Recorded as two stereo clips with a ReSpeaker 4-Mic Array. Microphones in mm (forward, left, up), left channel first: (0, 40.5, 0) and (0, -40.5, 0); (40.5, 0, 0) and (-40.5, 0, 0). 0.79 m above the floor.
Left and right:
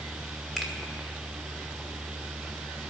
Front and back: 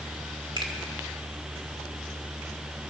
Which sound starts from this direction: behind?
A finger snap, at 0.6 s.